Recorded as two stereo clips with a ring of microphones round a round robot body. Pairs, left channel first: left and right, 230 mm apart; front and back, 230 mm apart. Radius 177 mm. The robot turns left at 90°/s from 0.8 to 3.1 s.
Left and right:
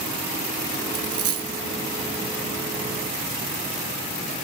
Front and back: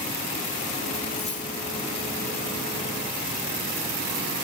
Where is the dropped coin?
45° right, 2.5 m; by 1.6 s 100° right, 2.5 m.